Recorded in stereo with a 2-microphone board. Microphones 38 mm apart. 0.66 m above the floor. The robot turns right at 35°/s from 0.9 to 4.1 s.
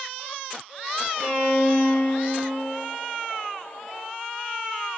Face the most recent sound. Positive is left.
turn(degrees=-40)